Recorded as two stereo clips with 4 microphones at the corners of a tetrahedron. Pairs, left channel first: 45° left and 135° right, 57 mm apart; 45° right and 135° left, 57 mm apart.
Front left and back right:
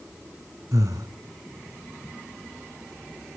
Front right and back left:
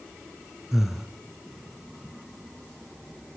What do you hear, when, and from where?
0.7 s breathing: 140° right, 2 m